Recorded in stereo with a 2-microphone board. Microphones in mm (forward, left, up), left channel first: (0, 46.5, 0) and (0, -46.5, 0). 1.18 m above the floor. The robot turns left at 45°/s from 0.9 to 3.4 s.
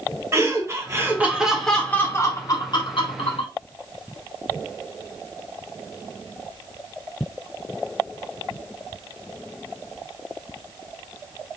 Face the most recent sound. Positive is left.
turn(degrees=95)